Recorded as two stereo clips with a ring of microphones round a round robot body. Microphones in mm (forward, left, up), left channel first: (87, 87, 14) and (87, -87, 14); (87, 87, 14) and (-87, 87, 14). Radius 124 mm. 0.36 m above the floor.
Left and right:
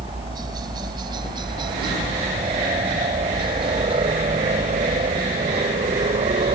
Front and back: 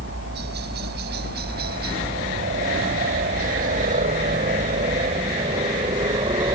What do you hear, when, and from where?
0.0 s a helicopter: 160° right; by 6.5 s 125° right